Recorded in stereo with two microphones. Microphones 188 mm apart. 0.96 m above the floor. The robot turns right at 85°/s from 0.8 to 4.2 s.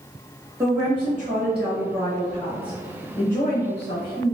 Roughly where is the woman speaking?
Behind.